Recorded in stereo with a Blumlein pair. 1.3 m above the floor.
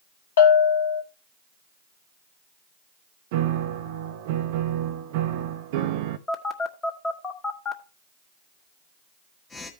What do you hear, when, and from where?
0.4 s a bell: 60° left, 1.4 m
3.3 s a piano: 50° right, 0.7 m
6.3 s a phone buzzing: 15° left, 1.5 m